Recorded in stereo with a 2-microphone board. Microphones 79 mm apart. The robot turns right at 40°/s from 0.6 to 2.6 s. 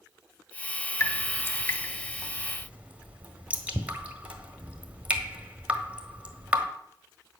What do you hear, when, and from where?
1.0 s dripping: 45° left (ahead or behind), 1.4 m; by 6.7 s 15° right (ahead or behind), 1.4 m